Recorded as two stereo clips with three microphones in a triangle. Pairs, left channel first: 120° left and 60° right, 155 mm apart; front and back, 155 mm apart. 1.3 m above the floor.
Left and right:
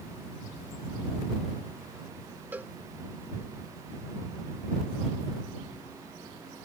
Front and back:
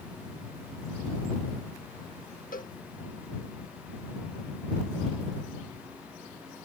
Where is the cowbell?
20° left.